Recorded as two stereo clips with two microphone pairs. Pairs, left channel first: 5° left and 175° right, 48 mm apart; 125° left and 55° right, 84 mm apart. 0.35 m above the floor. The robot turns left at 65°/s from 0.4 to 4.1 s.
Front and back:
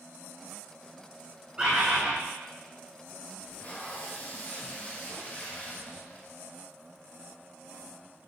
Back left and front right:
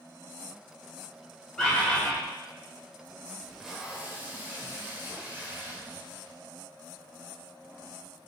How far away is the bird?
About 1.3 m.